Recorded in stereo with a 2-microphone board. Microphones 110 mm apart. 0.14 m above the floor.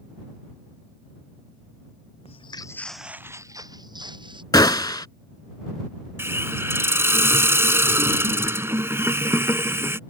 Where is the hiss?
20° right (ahead or behind).